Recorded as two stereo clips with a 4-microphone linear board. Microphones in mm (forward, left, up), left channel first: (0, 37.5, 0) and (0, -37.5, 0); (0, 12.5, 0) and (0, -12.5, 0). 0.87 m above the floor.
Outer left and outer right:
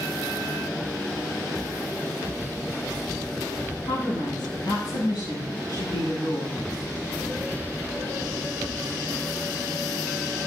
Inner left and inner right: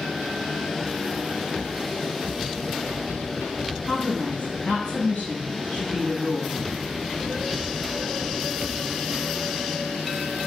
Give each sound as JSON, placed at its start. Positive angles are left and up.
{"t": 3.9, "sound": "a woman speaking", "side_deg": 75, "distance_m": 7.5}